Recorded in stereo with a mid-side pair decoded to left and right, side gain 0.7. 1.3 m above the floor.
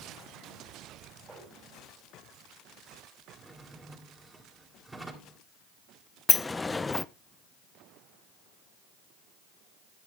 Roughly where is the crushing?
I don't hear crushing.